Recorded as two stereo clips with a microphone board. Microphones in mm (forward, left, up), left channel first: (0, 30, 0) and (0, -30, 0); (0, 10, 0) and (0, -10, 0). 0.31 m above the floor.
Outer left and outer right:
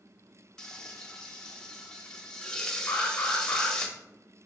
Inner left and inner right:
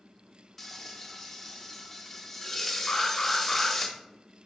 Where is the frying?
10° left (ahead or behind), 0.5 m.